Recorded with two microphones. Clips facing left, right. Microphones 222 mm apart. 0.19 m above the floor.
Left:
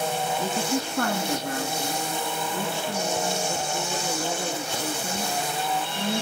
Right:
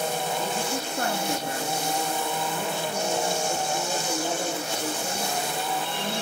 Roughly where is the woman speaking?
Left.